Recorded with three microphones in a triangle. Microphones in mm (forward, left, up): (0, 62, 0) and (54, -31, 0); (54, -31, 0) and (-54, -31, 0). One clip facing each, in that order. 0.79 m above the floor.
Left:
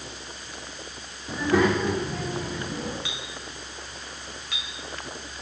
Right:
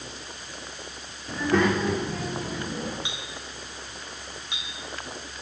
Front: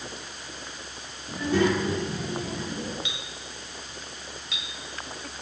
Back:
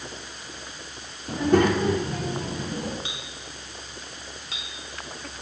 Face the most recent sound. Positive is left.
turn(degrees=-130)